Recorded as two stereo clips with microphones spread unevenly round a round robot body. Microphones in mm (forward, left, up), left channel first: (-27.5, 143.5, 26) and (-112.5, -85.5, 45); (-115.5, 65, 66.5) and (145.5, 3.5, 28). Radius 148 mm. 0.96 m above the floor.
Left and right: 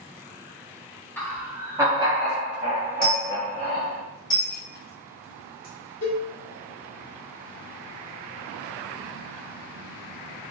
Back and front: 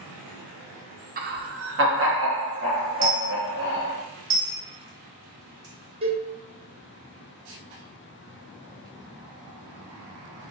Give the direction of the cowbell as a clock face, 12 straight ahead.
10 o'clock.